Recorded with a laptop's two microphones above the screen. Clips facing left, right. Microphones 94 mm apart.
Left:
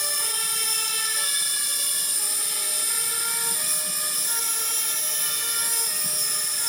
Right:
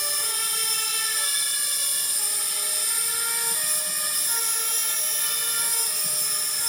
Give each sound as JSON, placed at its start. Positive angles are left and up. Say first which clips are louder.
{"t": 0.0, "sound": "an insect", "louder": "even", "side_deg": 35, "distance_m": 4.0}